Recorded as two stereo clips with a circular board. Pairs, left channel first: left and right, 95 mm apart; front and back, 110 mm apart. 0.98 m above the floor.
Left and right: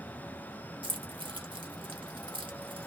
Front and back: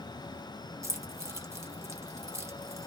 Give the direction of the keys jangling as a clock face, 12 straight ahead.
4 o'clock.